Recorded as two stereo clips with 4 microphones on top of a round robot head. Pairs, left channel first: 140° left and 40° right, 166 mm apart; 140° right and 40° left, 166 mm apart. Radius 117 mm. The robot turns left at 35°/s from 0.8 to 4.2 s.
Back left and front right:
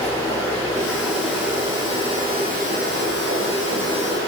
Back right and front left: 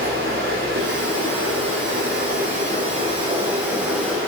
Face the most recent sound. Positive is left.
turn(degrees=-60)